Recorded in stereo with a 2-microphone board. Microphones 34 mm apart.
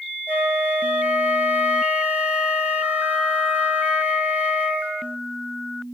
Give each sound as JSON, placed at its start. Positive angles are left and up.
{"t": 0.3, "sound": "a flute", "side_deg": -45, "distance_m": 2.0}